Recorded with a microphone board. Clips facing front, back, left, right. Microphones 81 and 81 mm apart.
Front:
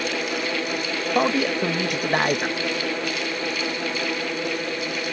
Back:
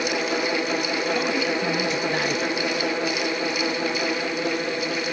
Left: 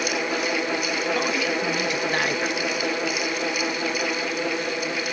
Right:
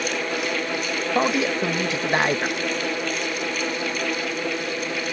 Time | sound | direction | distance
1.1 | a man speaking | 30° right | ?